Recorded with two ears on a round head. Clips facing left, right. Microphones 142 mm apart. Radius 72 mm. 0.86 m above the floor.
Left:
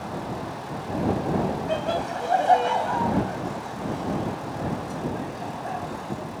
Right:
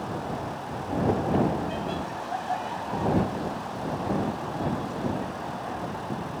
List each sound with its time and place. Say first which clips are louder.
1.7 s laughter: left 5 dB; 70° left (ahead or behind); by 6.3 s 50° left (ahead or behind)